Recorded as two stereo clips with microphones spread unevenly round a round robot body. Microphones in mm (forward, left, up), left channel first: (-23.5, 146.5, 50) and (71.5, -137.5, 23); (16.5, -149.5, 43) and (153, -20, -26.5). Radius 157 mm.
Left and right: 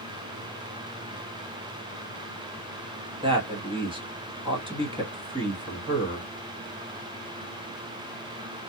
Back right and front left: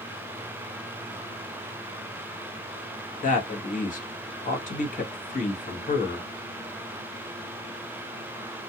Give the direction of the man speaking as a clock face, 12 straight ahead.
3 o'clock.